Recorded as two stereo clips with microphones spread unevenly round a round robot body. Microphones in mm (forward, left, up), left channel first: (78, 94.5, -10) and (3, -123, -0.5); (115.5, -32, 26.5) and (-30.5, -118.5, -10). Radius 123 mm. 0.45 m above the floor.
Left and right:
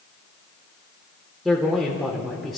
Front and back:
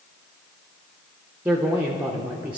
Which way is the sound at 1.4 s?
160° left.